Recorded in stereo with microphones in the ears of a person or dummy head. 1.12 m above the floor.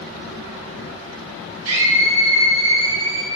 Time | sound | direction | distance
1.6 | a scream | 80° right | 2.5 m